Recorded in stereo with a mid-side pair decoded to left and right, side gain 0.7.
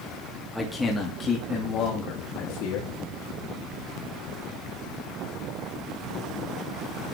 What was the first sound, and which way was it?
A man speaking, 10° left.